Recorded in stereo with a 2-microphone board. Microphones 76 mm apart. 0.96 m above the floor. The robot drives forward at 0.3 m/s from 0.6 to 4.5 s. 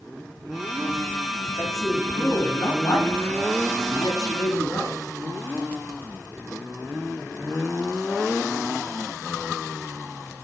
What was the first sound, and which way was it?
A man speaking, 50° left (ahead or behind).